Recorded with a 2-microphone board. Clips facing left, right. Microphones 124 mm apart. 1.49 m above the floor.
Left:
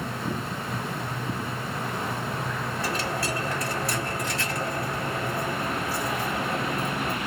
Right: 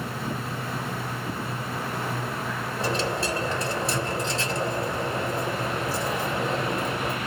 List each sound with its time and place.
2.8 s a dropped coin: 25° right (ahead or behind), 1.7 m